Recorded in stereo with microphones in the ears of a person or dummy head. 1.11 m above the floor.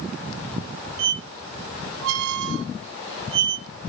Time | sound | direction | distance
1.0 | a squeak | 70° right (ahead or behind) | 0.6 m